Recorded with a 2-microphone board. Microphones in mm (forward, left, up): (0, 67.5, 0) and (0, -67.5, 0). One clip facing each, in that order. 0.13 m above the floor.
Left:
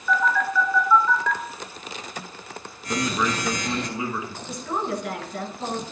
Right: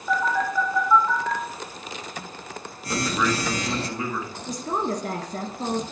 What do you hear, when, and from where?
0.1 s a phone buzzing: 35° right (ahead or behind), 1.3 m
2.9 s a man speaking: 10° left (ahead or behind), 1.6 m
4.5 s a woman speaking: 40° right (ahead or behind), 1.3 m